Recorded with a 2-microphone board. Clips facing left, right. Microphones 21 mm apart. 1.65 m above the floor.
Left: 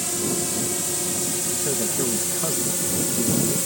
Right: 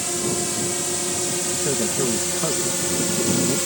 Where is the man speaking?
5° right (ahead or behind).